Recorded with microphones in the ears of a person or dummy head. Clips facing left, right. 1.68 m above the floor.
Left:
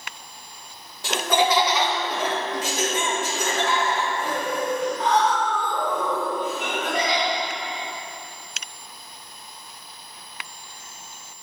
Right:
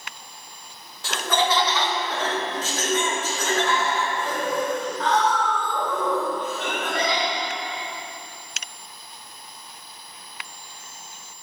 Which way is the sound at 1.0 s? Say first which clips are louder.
Left 2 dB; 15° left (ahead or behind).